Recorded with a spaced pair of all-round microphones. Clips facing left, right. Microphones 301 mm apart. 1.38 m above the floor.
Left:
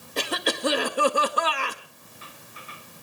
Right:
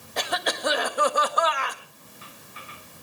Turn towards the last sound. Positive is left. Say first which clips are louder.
# left 2 dB
turn(degrees=35)  # may be behind; listen again after turning